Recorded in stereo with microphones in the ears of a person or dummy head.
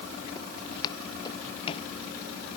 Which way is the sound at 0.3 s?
25° left (ahead or behind).